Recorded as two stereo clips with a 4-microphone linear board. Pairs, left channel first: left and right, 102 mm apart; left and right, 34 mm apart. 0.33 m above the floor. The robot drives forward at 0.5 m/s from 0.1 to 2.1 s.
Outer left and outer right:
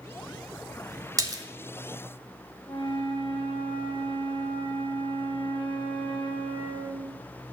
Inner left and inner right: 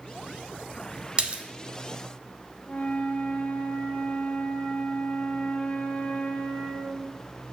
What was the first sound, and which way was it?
A splash, 35° right (ahead or behind).